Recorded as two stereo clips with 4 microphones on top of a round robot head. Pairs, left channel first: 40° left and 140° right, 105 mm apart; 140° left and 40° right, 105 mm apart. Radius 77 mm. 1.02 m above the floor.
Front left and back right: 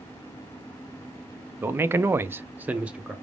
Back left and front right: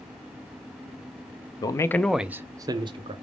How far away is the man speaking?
About 0.5 m.